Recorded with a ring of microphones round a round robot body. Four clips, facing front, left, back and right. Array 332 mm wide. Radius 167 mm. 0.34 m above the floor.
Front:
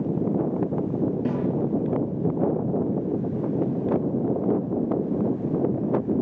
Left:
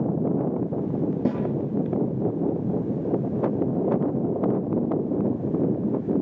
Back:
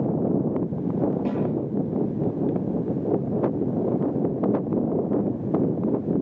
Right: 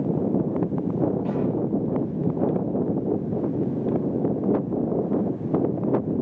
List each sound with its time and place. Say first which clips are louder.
1.2 s a snare drum: left 1 dB, back 1 dB; 75° left, 8 m